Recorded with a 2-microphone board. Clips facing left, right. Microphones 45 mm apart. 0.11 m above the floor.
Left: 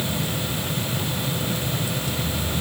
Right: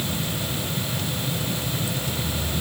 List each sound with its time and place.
Only background noise.